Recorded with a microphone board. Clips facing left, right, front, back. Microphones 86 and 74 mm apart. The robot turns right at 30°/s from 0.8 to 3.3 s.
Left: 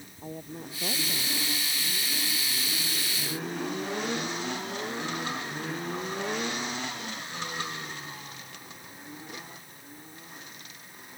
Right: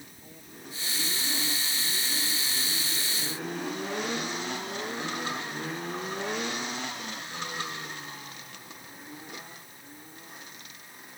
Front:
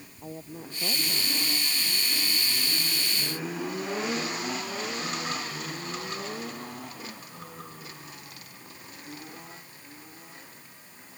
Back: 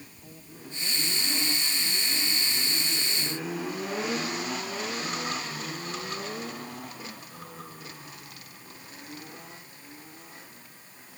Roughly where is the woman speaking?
Ahead left.